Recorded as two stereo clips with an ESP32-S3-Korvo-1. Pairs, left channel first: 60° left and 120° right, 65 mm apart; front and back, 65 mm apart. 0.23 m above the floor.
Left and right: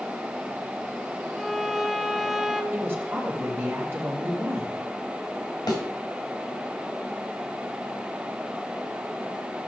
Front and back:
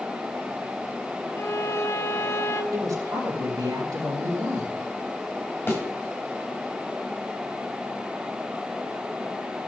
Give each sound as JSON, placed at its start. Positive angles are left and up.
{"t": 1.4, "sound": "a violin", "azimuth_deg": -35, "distance_m": 0.8}
{"t": 2.7, "sound": "a woman speaking", "azimuth_deg": -175, "distance_m": 4.0}
{"t": 5.7, "sound": "a thud", "azimuth_deg": 60, "distance_m": 4.0}